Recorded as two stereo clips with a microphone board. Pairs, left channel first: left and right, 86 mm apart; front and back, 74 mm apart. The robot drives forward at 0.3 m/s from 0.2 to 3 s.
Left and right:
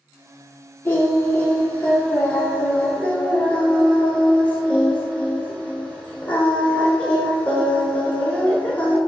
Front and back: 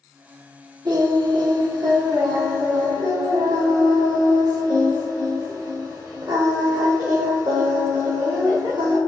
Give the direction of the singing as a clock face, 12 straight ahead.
7 o'clock.